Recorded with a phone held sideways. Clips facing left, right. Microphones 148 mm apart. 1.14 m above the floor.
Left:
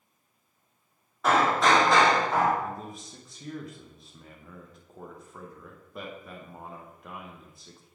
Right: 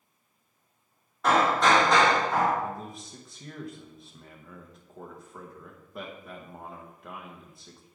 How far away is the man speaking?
About 0.7 m.